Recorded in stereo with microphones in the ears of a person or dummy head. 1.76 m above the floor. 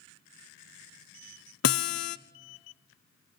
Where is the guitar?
55° left (ahead or behind), 0.5 m.